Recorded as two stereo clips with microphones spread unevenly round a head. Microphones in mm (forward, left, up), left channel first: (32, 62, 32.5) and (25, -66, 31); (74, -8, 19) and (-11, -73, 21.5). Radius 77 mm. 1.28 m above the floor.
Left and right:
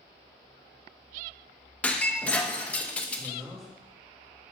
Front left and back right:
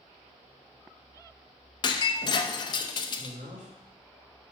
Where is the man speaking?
175° left, 2.5 m.